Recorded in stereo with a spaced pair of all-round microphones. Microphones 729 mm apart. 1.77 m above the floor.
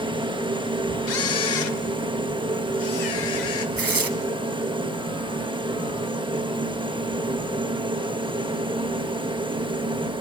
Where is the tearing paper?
30° right (ahead or behind), 0.8 m.